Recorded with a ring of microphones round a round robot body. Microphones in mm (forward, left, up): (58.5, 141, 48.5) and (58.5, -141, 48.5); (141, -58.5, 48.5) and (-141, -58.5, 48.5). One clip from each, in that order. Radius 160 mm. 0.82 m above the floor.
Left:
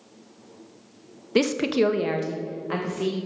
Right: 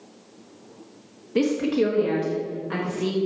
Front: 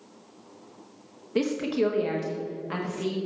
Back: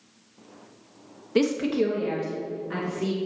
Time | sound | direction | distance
1.4 | a woman speaking | 110° left | 0.7 m